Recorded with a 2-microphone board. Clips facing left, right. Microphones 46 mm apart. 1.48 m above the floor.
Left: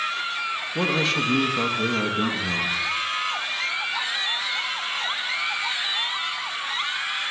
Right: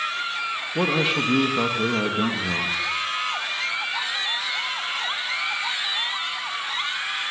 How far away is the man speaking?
About 1.8 m.